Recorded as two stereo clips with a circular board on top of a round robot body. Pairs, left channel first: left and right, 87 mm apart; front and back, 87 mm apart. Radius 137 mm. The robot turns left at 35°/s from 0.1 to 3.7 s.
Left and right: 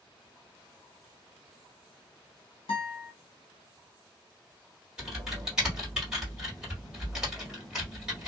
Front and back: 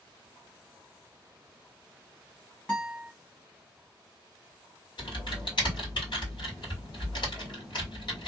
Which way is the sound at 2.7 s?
90° left.